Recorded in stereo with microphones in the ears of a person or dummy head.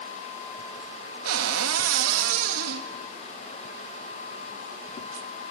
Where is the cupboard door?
85° right, 1.6 m.